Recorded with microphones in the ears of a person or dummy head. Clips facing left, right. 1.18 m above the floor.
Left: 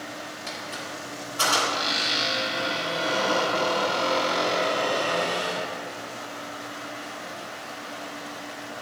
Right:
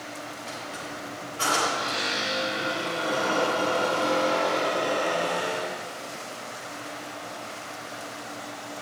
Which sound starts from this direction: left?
A squeak, at 0.5 s.